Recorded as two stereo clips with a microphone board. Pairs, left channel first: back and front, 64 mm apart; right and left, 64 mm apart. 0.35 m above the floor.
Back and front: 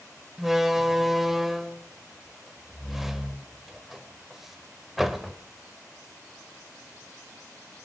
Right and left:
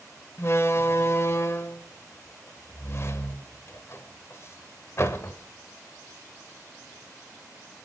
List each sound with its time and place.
0.4 s a door slam: 80° right, 0.7 m